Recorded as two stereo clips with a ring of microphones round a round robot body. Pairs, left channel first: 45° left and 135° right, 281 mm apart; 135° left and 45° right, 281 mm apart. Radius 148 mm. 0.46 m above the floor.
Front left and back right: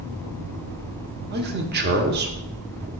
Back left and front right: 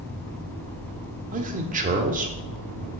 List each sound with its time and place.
1.3 s a man speaking: 95° right, 1.2 m